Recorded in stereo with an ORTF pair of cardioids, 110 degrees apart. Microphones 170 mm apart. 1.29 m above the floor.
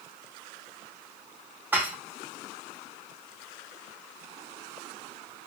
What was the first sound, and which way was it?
Dishes clattering, 10° right.